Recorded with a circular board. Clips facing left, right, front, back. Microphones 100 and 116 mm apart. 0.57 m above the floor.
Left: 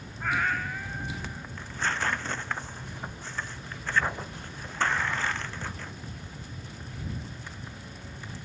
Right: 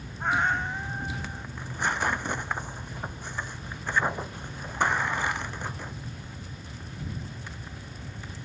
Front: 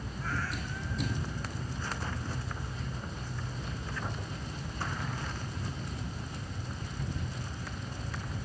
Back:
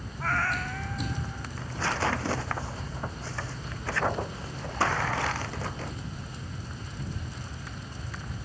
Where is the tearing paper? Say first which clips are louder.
Right 2 dB, back 8 dB; 165° right.